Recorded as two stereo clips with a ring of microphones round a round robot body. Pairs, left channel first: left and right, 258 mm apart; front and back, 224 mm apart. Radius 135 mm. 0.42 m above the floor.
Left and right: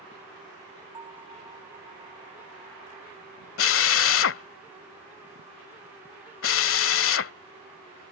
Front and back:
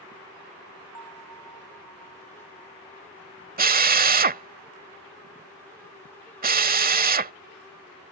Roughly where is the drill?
Behind left.